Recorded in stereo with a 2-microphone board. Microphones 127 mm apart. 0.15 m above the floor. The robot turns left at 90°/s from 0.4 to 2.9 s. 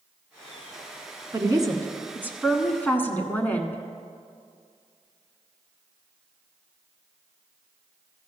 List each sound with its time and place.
1.3 s a woman speaking: 25° right (ahead or behind), 1.2 m; by 3.8 s 15° left (ahead or behind), 1.2 m